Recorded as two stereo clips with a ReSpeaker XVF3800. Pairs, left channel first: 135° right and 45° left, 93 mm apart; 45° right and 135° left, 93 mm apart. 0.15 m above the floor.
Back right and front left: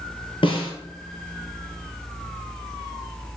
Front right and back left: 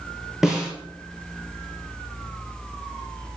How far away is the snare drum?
About 4 m.